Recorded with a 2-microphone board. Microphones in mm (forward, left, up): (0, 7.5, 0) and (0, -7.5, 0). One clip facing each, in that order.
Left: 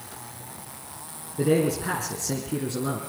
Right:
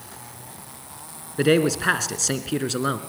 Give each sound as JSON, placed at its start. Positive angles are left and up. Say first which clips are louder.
{"t": 1.4, "sound": "a man speaking", "louder": "right 4 dB", "side_deg": -45, "distance_m": 2.0}